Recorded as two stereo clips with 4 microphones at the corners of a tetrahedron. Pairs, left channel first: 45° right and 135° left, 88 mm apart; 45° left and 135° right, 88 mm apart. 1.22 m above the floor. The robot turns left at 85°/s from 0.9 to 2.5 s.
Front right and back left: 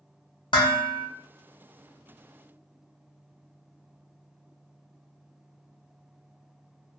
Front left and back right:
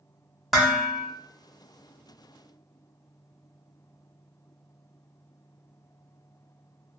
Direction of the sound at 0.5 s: 45° right.